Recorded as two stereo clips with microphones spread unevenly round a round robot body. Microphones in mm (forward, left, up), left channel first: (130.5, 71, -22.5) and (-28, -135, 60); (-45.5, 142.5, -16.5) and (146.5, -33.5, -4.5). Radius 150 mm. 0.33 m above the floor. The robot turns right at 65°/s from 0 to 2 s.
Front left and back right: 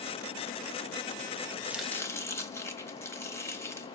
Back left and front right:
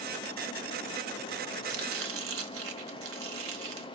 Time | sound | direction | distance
1.6 | chopping | 35° right | 1.2 m